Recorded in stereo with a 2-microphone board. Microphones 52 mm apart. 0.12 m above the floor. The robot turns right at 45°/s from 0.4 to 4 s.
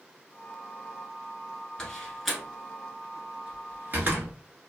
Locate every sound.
1.8 s a door slam: 15° left (ahead or behind), 1.0 m; by 4.3 s 40° right (ahead or behind), 1.0 m